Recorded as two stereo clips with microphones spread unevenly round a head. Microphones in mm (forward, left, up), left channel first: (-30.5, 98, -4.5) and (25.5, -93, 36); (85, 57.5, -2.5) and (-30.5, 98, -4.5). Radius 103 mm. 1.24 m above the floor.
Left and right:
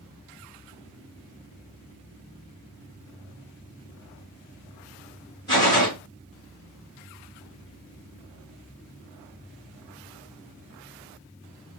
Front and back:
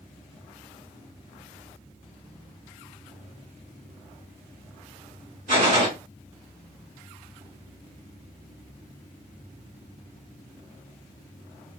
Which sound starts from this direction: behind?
A gunshot, at 5.5 s.